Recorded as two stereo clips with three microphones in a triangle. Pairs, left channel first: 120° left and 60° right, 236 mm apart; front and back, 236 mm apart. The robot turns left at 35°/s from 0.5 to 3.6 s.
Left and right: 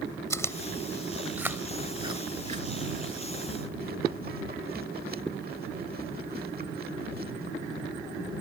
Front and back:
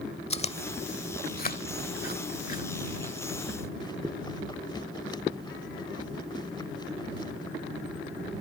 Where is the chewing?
50° left; by 7.6 s 60° right.